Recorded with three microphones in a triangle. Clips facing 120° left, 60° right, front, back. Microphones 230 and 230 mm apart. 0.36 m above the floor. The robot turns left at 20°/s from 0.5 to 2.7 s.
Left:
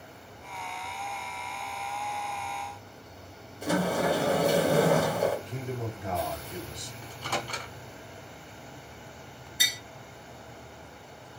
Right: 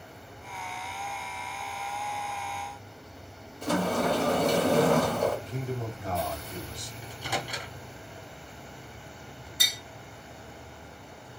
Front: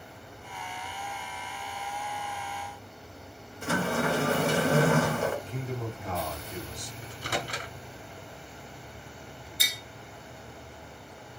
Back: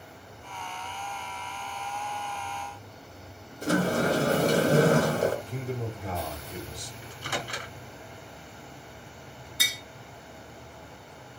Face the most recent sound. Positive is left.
turn(degrees=-160)